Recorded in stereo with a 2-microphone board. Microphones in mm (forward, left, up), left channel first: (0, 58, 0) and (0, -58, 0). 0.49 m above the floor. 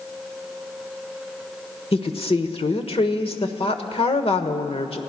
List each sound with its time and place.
1.9 s a woman speaking: 55° left (ahead or behind), 1.4 m